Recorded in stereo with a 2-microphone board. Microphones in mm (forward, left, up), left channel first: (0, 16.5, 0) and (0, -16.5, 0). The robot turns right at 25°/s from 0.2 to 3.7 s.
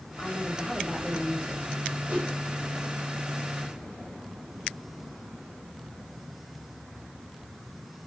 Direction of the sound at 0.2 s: 135° left.